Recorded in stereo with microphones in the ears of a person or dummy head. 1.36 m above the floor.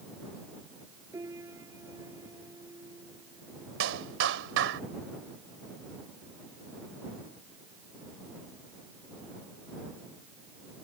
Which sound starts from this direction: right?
A clap, at 3.8 s.